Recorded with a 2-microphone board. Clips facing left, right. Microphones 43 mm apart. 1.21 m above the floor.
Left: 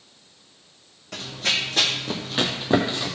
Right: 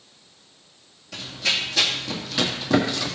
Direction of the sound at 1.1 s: 55° left (ahead or behind).